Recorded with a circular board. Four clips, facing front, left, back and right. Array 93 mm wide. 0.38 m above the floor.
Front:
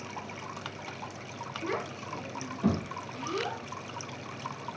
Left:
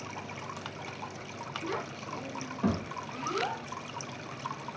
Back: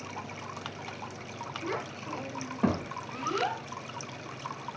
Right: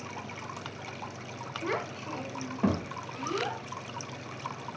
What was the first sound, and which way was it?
A child speaking, 75° right.